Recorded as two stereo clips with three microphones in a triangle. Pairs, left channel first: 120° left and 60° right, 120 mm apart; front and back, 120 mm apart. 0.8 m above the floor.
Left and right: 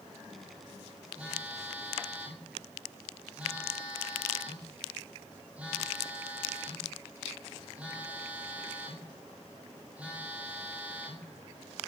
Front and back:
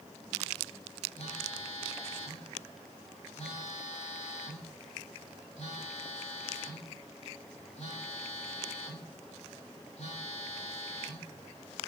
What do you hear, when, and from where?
1.2 s a phone buzzing: 15° left, 3 m